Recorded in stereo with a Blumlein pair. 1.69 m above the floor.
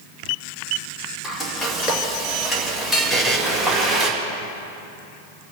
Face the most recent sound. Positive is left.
turn(degrees=0)